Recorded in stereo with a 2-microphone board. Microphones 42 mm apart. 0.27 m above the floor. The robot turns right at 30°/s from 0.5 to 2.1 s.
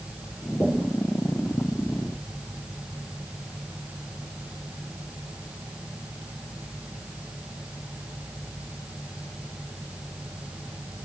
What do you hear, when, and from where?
0.6 s knocking: 50° left (ahead or behind), 2.5 m; by 1.0 s 40° left (ahead or behind), 2.5 m